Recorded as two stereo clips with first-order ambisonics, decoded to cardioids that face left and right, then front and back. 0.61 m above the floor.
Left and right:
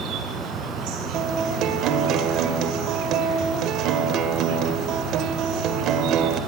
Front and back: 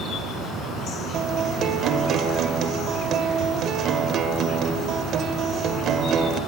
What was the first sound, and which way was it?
An insect, 65° right.